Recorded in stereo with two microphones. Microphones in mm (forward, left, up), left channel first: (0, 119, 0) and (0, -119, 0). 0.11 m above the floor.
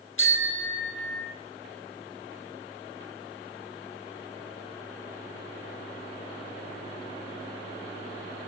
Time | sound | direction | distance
0.2 | a bicycle bell | 60° left (ahead or behind) | 2.5 m